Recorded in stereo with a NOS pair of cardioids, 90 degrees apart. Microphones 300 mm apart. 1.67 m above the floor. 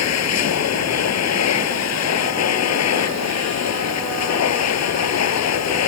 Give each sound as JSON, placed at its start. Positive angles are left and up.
{"t": 0.0, "sound": "a machine running", "azimuth_deg": 60}